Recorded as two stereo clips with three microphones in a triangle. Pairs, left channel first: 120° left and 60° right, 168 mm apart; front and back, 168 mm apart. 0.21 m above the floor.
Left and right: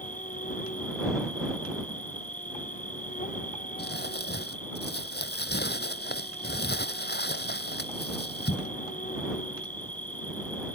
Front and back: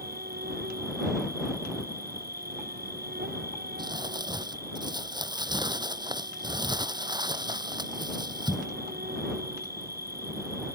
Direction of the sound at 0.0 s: 160° left.